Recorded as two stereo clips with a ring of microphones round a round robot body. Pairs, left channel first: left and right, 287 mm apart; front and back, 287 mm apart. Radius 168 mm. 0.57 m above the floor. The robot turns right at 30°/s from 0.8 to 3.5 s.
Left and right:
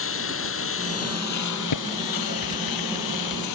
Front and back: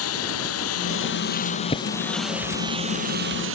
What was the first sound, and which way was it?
A lawn mower, 45° left.